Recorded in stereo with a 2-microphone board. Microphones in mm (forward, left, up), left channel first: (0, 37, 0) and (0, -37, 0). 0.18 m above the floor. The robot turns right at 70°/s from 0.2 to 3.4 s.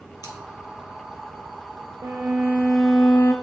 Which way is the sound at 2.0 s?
55° right.